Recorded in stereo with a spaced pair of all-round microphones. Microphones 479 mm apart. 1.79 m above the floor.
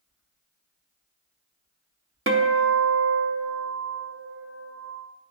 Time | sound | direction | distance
2.3 | a guitar | 25° right (ahead or behind) | 0.6 m